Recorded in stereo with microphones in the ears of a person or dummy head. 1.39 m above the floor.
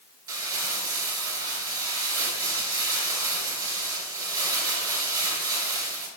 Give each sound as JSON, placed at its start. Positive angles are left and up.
{"t": 0.3, "sound": "crumpling", "side_deg": -30, "distance_m": 4.0}